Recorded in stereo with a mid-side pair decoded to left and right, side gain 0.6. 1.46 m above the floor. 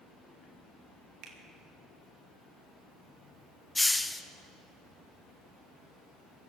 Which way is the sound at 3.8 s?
10° left.